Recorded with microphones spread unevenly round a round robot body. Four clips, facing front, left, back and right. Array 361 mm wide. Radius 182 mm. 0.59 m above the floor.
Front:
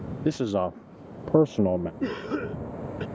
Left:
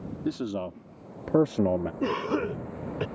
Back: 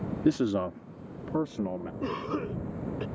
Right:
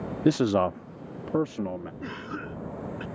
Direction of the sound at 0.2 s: 130° right.